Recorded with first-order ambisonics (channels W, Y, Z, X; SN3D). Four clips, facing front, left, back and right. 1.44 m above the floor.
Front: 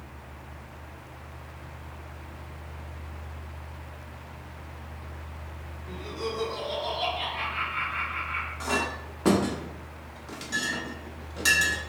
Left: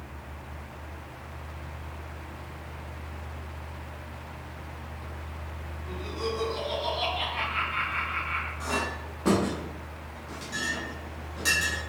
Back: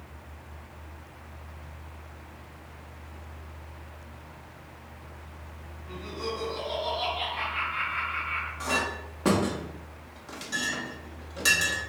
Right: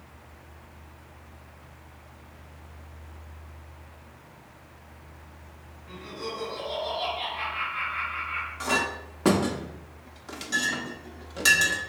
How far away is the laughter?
About 1.8 m.